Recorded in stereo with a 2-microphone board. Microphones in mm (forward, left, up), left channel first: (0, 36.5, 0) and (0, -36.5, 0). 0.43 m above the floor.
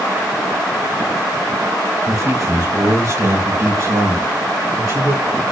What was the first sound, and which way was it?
A man speaking, 40° right (ahead or behind).